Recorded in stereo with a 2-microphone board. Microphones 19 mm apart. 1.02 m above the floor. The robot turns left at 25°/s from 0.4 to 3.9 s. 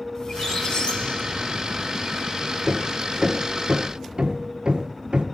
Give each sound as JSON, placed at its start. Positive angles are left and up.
{"t": 0.1, "sound": "a squeak", "azimuth_deg": 145, "distance_m": 1.7}
{"t": 2.6, "sound": "hammering", "side_deg": -15, "distance_m": 1.7}